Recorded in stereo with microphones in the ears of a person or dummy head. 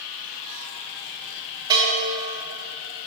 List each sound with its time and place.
1.7 s a bell: 20° right (ahead or behind), 2.5 m